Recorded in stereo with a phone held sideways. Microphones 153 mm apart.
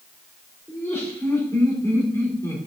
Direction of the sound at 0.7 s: 15° left (ahead or behind).